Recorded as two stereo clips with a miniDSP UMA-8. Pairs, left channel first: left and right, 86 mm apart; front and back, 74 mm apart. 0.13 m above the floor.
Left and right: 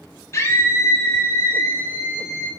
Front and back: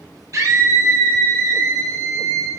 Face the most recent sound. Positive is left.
turn(degrees=140)